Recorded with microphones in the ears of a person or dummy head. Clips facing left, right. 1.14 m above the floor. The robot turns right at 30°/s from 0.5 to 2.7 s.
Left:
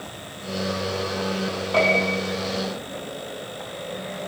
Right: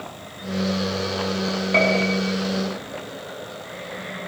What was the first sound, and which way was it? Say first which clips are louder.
A piano: even; 25° right (ahead or behind).